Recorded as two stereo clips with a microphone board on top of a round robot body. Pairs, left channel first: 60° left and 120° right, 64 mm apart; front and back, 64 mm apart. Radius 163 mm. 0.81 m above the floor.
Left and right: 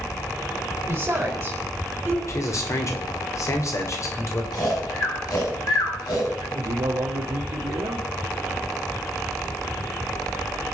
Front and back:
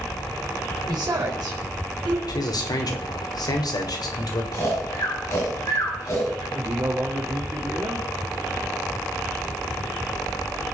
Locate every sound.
0.9 s a woman speaking: straight behind, 4.5 m
2.3 s a man speaking: 15° left, 3 m
4.5 s snoring: 40° left, 7.5 m
6.5 s a man speaking: 130° right, 2 m